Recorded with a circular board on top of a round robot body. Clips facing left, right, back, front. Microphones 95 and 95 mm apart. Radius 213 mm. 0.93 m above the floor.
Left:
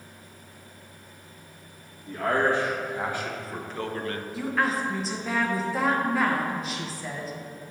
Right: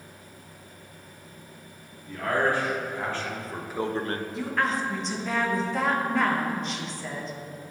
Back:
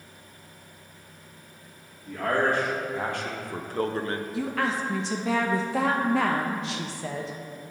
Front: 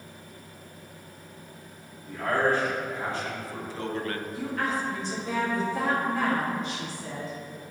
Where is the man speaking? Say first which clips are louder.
Left 1 dB, even; 155° left, 1.9 m; by 4.2 s 110° right, 0.7 m.